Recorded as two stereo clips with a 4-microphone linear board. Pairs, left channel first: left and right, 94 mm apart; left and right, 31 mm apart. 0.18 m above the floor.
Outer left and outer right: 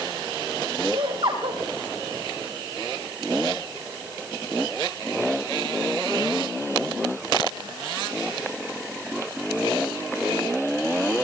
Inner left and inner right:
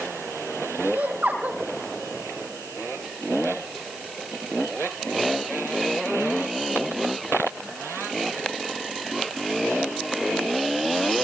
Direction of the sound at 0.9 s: 75° right (ahead or behind).